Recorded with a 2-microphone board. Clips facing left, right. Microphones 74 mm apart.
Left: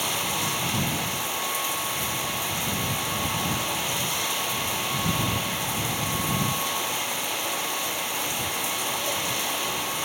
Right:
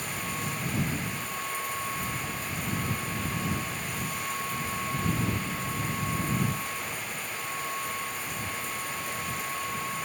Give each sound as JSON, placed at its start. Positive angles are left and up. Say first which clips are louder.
{"t": 0.0, "sound": "running water", "louder": "left 5 dB", "side_deg": 75}